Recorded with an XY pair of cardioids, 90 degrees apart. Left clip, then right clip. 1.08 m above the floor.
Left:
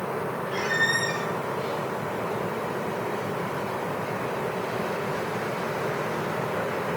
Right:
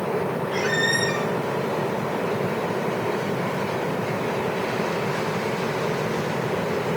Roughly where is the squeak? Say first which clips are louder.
Right 1 dB; right.